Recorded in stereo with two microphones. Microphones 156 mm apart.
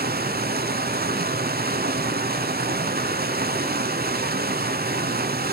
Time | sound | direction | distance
0.0 | running water | 80° right | 0.9 m